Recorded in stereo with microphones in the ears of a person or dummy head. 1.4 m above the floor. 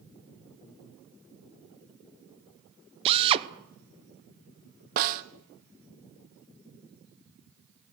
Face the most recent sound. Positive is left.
turn(degrees=-50)  # may be behind; listen again after turning